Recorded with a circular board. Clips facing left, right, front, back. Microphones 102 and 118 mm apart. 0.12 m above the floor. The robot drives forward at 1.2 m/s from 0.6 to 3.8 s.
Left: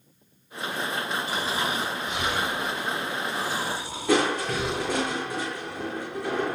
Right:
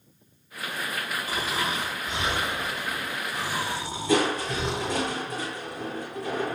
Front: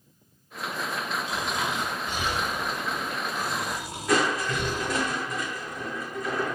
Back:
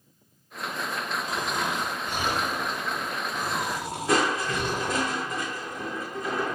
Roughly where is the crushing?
Behind left.